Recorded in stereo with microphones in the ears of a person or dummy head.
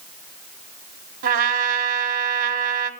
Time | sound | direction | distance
1.2 | a trumpet | 50° right (ahead or behind) | 1.2 m